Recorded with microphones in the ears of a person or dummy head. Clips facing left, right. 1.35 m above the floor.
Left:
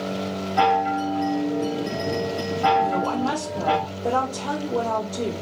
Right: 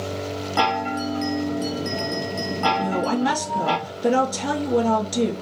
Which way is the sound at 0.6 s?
50° right (ahead or behind).